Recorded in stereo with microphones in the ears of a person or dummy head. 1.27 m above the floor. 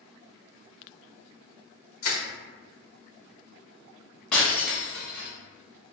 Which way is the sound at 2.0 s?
45° left (ahead or behind).